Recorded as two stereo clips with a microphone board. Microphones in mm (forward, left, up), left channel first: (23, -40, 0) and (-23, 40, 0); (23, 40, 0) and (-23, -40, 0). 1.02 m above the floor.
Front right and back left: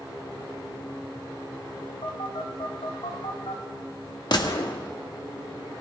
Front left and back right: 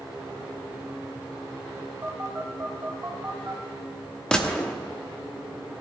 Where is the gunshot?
20° right, 1.2 m.